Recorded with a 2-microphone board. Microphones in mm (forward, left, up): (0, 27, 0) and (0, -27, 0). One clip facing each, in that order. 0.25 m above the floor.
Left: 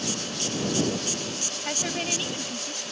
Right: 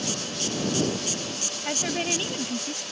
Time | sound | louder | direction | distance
1.6 | a woman speaking | right 2 dB | centre (ahead or behind) | ?